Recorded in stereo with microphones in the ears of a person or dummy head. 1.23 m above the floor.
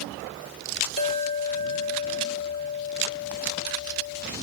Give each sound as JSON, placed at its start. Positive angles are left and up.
{"t": 1.0, "sound": "a clink", "side_deg": 65, "distance_m": 2.0}